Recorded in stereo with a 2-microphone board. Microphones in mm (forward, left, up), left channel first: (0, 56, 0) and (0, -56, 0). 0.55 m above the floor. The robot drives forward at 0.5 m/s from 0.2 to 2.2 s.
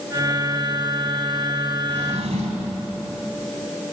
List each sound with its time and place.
1.9 s a drawer: 75° right (ahead or behind), 2.5 m; by 2.8 s 80° right, 2.5 m